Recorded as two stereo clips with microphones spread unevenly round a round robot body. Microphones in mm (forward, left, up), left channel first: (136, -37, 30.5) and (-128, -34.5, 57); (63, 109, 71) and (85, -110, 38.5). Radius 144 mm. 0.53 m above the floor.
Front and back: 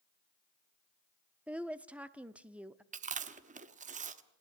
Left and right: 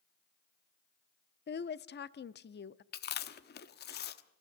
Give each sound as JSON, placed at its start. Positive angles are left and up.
{"t": 1.5, "sound": "a woman speaking", "azimuth_deg": 90, "distance_m": 0.7}
{"t": 2.9, "sound": "chewing", "azimuth_deg": 125, "distance_m": 1.0}